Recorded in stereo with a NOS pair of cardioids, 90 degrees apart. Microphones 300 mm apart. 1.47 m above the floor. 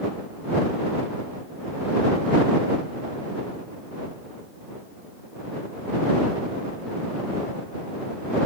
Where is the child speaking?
I don't hear a child speaking.